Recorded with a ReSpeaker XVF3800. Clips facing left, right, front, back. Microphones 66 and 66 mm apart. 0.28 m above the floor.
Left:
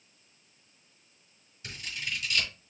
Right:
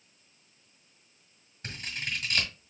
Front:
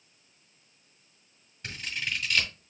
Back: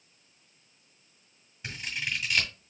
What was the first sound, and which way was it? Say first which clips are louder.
Scissors: right 1 dB, even; 95° right.